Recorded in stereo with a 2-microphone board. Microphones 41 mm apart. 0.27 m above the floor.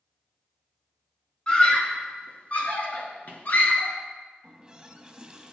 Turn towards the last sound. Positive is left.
turn(degrees=-20)  # may be behind; listen again after turning